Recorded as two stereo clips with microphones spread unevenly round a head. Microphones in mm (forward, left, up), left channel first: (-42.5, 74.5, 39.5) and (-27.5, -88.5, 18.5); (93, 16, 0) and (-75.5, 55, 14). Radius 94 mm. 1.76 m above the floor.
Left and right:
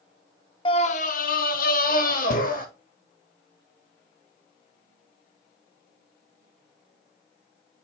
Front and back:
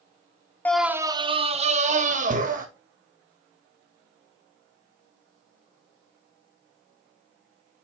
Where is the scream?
70° left, 0.6 m; by 2.6 s 130° left, 2 m.